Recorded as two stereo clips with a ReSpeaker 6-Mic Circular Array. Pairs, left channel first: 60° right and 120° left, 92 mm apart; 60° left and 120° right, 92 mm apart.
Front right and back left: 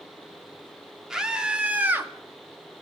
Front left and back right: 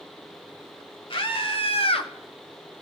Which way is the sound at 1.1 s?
40° left.